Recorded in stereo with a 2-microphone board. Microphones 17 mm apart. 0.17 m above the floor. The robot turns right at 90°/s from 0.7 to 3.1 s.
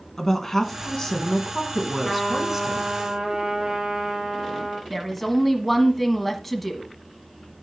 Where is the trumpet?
Straight behind, 3 m; by 4.8 s 80° right, 3 m.